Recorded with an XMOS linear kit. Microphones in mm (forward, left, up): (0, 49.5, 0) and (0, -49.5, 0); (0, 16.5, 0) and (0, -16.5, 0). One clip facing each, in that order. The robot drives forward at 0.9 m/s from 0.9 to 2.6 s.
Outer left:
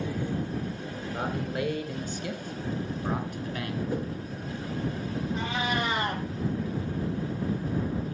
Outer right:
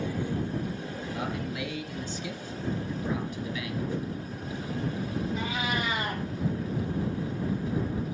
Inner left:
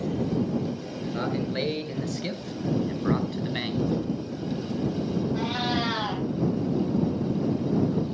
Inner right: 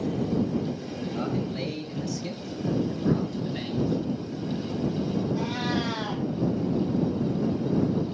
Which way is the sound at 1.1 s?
45° left (ahead or behind).